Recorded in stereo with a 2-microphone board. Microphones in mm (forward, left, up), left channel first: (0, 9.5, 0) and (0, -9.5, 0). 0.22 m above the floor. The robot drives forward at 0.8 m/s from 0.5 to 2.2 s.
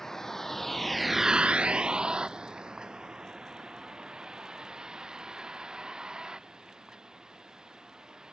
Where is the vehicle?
20° left (ahead or behind); by 8.3 s 35° right (ahead or behind).